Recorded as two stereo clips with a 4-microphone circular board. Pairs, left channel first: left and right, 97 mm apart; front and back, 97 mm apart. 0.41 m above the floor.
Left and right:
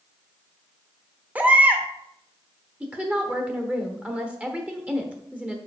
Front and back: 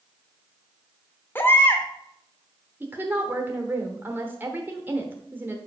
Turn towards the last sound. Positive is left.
turn(degrees=-145)